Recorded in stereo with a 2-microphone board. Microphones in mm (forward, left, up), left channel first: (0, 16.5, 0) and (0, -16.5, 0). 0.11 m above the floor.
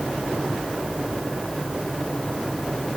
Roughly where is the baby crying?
I don't hear a baby crying.